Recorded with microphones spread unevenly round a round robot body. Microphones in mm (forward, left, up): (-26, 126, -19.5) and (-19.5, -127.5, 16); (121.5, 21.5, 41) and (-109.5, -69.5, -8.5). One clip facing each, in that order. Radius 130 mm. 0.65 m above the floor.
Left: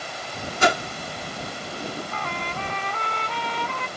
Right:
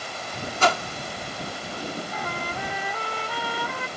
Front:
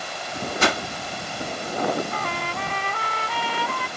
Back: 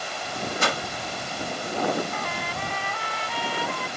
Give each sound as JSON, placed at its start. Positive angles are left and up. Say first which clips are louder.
{"t": 0.6, "sound": "a whoosh", "louder": "left 2 dB, front 6 dB", "azimuth_deg": 25}
{"t": 2.1, "sound": "a trumpet", "louder": "even, front 2 dB", "azimuth_deg": -5}